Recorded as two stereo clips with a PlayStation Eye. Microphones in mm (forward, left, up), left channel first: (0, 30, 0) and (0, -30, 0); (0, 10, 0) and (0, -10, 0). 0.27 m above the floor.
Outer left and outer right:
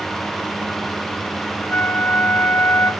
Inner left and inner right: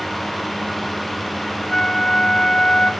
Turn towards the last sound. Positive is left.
turn(degrees=30)  # may be behind; listen again after turning